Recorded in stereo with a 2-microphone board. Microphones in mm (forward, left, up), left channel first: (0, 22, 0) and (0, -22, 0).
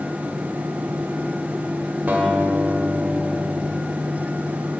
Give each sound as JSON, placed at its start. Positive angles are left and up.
{"t": 2.1, "sound": "a guitar", "side_deg": -45, "distance_m": 1.9}